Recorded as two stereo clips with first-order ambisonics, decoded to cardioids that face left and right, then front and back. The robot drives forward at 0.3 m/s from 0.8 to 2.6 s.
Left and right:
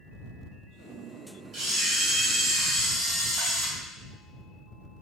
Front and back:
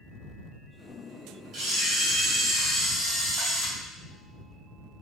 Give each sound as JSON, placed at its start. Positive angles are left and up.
{"t": 1.5, "sound": "a camera shutter", "azimuth_deg": -150, "distance_m": 1.5}